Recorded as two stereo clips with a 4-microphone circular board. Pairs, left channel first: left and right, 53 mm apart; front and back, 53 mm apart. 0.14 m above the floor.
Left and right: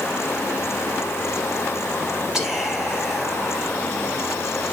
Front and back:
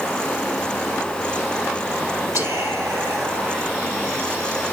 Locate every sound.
2.3 s whispering: 175° right, 3.5 m